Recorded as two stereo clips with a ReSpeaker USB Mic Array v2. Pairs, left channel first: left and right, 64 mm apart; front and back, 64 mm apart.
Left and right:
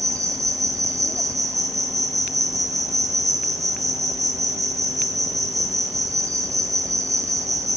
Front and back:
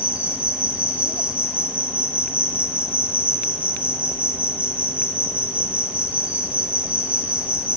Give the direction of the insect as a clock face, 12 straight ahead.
4 o'clock.